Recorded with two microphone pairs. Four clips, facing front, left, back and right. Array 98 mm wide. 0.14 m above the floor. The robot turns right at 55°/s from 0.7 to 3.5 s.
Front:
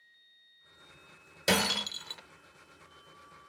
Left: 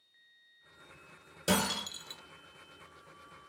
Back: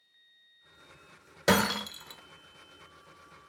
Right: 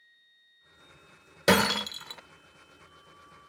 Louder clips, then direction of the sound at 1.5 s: Right 8 dB, back 4 dB; 105° right.